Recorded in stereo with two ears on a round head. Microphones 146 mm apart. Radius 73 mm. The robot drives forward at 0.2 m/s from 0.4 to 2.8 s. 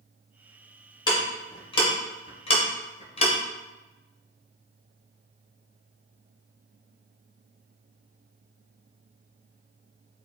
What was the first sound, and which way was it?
Ticking, 25° left (ahead or behind).